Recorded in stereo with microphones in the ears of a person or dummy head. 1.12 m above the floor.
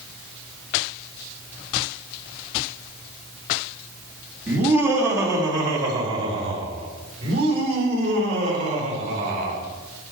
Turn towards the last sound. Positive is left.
turn(degrees=-45)  # may be behind; listen again after turning